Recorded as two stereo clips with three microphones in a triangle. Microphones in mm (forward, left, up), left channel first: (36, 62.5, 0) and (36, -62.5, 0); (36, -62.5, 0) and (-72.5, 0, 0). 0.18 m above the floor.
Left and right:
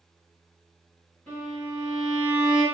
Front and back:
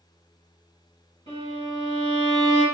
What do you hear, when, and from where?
1.3 s a violin: 160° left, 1.8 m